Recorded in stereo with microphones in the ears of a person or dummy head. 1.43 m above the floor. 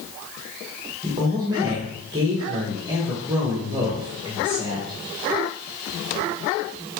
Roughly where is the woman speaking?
Right.